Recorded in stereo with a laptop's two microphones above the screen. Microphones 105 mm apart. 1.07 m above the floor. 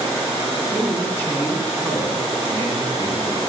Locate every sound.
0.7 s a man speaking: 85° left, 9 m